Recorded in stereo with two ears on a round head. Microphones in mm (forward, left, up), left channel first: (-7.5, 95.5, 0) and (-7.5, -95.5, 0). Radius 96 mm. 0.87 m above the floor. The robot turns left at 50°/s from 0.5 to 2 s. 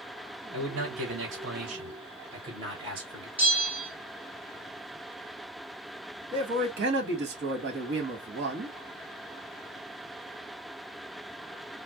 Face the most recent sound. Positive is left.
turn(degrees=-55)  # may be behind; listen again after turning